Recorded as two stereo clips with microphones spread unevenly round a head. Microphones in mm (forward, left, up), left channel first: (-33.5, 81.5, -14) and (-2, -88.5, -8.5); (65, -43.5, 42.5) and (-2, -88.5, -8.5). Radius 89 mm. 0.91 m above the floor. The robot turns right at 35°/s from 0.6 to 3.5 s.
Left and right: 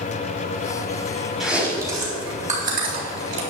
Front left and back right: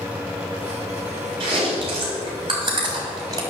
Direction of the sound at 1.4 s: 170° right.